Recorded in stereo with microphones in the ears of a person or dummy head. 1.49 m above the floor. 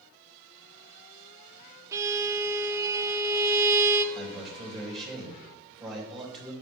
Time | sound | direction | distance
1.9 | a violin | 15° right (ahead or behind) | 0.6 m
4.2 | a man speaking | centre (ahead or behind) | 3 m